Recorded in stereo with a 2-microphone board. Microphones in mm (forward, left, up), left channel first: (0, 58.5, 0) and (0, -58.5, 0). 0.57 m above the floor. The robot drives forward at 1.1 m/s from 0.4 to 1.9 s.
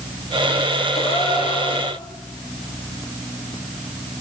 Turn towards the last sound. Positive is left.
turn(degrees=50)  # may be behind; listen again after turning